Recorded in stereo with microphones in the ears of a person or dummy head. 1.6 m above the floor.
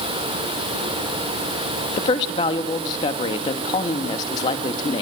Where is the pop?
I don't hear a pop.